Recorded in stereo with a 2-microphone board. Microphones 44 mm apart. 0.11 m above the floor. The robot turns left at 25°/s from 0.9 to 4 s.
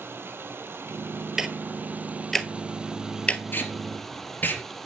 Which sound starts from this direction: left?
Tape being pulled, at 3.5 s.